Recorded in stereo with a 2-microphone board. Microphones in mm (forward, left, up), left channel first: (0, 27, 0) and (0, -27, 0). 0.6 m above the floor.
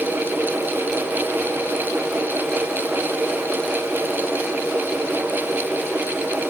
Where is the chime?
I don't hear a chime.